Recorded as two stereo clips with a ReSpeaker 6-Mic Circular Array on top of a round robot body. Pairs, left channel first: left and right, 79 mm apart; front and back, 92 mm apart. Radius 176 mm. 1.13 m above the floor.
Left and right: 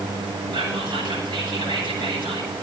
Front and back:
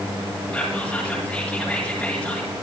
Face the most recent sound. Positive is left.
turn(degrees=-75)